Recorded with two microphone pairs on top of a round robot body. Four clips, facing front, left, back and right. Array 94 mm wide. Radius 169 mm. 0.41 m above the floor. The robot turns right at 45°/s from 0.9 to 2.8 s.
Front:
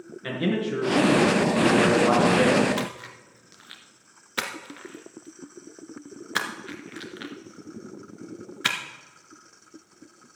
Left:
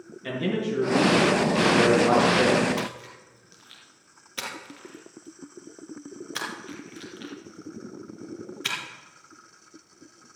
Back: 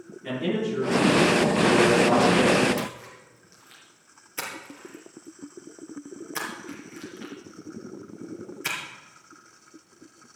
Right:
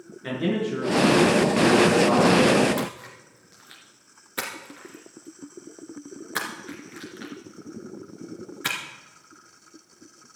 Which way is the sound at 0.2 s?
25° right.